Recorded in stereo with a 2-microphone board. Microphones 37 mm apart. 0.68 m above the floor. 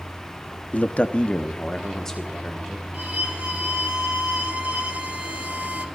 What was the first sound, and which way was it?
A man speaking, 45° left (ahead or behind).